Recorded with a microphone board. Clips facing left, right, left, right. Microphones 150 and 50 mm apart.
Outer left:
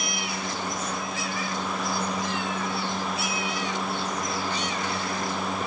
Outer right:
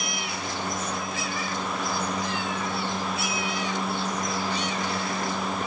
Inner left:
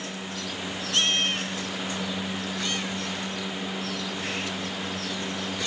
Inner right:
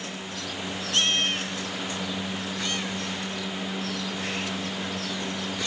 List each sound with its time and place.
Only background noise.